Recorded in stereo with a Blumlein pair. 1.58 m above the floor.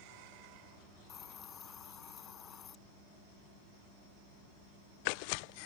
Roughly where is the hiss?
Ahead left.